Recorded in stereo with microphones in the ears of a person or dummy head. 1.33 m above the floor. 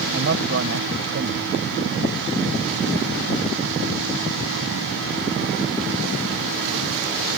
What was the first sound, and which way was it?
A man speaking, 60° right (ahead or behind).